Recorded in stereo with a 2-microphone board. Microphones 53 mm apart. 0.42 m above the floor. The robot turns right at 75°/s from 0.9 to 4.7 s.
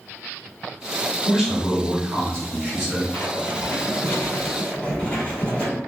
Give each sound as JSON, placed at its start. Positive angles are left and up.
{"t": 1.2, "sound": "a man speaking", "azimuth_deg": -165, "distance_m": 1.5}
{"t": 3.1, "sound": "writing", "azimuth_deg": 40, "distance_m": 1.7}